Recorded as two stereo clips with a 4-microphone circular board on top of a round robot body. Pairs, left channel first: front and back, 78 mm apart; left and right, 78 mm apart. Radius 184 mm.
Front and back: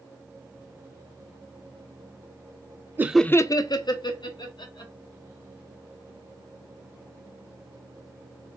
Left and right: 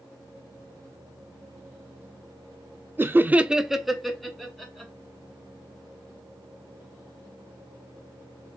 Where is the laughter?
135° right, 0.5 m; by 4.9 s 5° left, 1.9 m.